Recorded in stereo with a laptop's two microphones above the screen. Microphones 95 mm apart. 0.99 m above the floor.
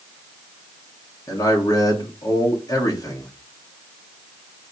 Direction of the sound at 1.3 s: 40° left (ahead or behind).